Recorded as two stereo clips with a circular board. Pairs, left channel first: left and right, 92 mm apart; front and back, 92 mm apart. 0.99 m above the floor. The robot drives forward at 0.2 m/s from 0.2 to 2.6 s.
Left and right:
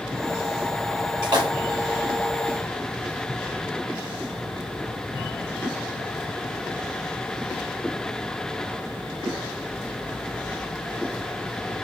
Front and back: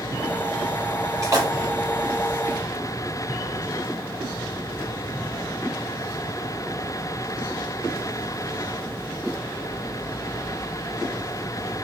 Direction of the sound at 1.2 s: 130° right.